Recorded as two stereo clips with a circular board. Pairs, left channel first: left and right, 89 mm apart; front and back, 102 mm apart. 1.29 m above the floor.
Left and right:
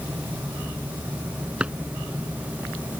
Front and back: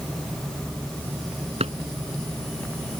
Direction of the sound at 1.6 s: 165° right.